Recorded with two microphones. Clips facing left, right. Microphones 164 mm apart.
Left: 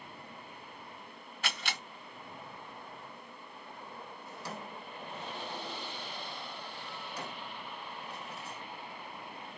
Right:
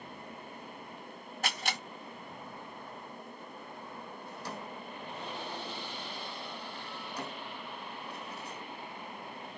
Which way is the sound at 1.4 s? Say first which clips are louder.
Right 3 dB; 40° right (ahead or behind).